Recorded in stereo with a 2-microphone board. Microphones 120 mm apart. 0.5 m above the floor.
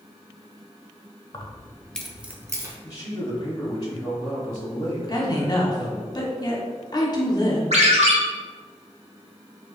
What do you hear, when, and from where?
1.3 s keys jangling: 40° left (ahead or behind), 0.6 m; by 2.7 s 30° right (ahead or behind), 0.6 m
2.8 s a man speaking: 30° left (ahead or behind), 0.8 m
5.1 s a woman speaking: 35° left (ahead or behind), 0.8 m
7.7 s a ringtone: 65° right (ahead or behind), 0.9 m